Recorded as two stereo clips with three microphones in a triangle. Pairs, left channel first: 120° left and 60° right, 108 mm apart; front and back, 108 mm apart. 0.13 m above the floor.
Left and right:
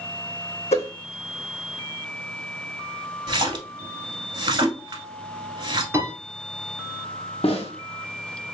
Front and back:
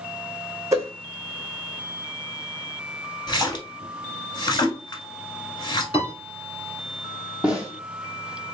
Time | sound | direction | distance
0.7 | a whoosh | 120° left | 1.1 m
3.3 | a splash | 35° right | 1.2 m
5.9 | a piano | straight ahead | 1.9 m
7.4 | a snare drum | 100° left | 1.1 m